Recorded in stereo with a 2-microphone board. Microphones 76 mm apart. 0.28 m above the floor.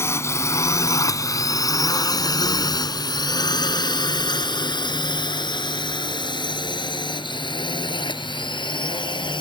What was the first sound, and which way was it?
A drone, 35° left (ahead or behind).